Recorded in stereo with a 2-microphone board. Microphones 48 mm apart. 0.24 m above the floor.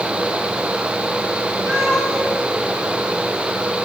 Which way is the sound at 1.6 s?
80° right.